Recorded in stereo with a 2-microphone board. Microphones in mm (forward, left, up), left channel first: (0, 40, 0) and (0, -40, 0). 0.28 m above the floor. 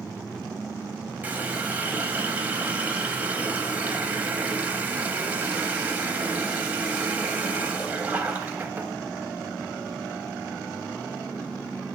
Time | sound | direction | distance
1.2 | a running tap | 20° right (ahead or behind) | 1.0 m